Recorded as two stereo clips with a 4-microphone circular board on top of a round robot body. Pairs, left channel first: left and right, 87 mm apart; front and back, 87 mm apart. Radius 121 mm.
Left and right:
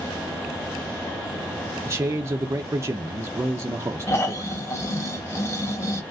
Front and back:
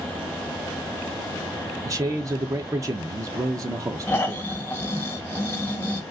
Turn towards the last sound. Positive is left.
turn(degrees=55)